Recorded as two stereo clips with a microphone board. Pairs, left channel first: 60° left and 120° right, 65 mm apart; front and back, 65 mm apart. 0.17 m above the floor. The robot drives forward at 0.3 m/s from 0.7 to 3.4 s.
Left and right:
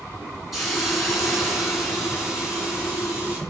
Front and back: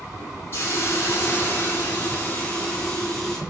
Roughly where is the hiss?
Ahead right.